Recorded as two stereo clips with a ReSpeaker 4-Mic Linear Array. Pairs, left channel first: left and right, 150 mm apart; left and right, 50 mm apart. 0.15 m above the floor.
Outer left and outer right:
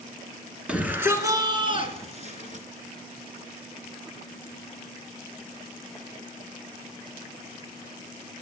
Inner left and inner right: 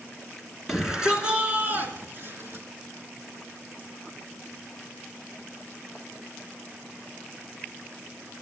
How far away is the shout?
About 2.5 m.